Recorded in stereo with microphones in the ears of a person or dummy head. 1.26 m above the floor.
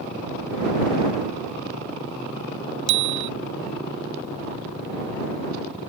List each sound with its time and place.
2.9 s a bicycle bell: 75° right (ahead or behind)